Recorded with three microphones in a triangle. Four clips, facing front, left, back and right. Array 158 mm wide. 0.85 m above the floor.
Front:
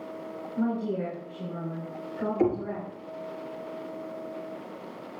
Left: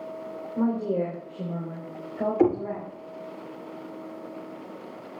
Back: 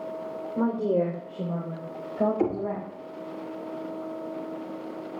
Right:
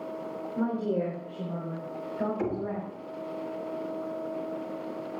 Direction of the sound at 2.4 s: 95° left.